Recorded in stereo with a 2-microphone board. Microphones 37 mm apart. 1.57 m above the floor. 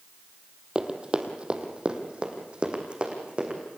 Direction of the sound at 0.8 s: 25° right (ahead or behind).